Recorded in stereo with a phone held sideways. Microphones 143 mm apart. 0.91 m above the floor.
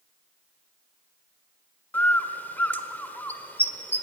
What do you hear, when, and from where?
1.9 s a bird: 15° left (ahead or behind), 1.4 m